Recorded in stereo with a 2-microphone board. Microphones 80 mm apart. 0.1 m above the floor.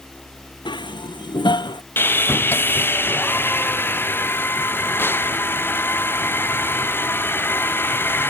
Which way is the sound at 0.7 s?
70° left (ahead or behind).